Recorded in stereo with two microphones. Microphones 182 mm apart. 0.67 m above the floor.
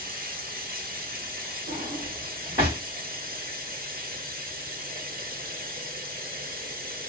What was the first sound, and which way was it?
Running water, 55° right (ahead or behind).